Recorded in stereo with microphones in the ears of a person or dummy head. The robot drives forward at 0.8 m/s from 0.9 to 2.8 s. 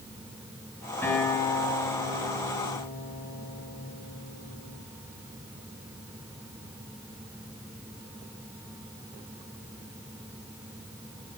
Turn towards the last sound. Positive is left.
turn(degrees=25)  # may be behind; listen again after turning